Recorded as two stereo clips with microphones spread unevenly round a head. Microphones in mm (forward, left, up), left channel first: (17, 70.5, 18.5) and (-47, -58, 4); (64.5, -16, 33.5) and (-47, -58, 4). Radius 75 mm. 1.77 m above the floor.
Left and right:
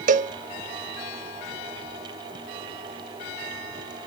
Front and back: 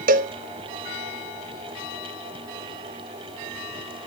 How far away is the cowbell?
About 0.6 m.